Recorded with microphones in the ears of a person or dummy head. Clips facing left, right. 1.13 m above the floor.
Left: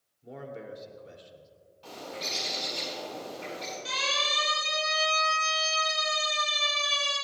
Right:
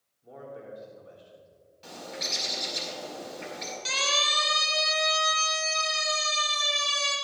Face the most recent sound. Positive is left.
turn(degrees=-70)  # may be behind; listen again after turning